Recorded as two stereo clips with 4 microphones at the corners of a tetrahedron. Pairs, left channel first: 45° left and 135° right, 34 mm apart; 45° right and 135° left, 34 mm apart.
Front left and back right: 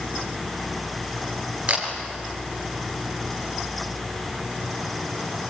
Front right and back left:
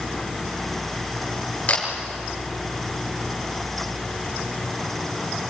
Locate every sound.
1.7 s a camera shutter: 90° right, 5 m